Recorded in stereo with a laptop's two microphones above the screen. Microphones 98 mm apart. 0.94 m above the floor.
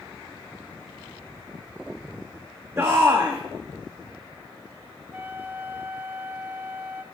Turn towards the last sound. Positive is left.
turn(degrees=-20)  # may be behind; listen again after turning